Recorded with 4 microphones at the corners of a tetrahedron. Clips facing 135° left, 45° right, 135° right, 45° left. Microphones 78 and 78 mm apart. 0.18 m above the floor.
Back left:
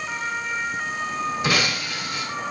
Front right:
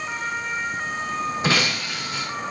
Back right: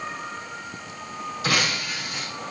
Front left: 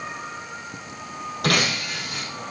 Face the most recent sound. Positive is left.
turn(degrees=15)